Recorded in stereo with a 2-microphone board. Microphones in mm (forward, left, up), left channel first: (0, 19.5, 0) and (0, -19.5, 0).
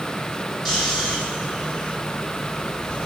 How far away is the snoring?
About 9 m.